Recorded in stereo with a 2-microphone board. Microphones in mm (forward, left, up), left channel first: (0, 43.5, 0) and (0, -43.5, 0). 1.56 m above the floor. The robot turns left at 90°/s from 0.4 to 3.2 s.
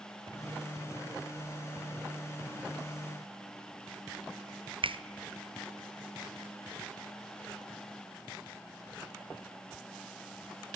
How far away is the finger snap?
About 0.6 m.